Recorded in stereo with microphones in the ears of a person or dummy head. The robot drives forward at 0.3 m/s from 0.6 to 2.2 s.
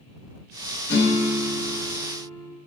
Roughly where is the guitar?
Left.